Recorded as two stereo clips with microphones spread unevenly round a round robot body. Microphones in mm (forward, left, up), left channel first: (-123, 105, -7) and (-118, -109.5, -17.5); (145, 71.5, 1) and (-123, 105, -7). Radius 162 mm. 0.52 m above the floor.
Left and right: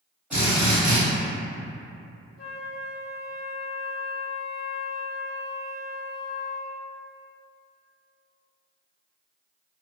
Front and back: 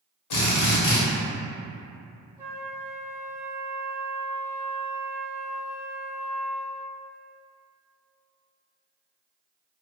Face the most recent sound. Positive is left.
turn(degrees=100)